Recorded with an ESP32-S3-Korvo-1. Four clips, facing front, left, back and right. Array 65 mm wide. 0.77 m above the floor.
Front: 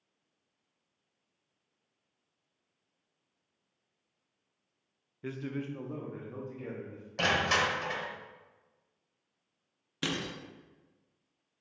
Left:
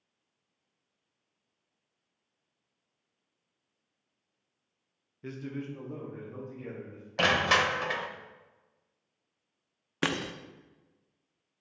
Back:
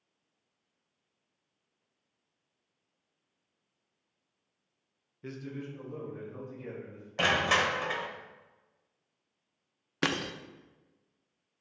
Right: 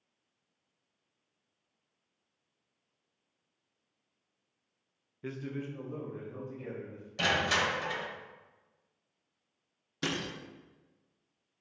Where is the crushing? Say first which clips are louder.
Left 4 dB, back 1 dB; 105° left, 0.7 m.